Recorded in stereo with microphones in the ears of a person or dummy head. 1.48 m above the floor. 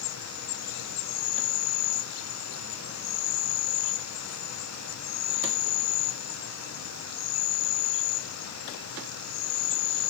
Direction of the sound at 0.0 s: 90° left.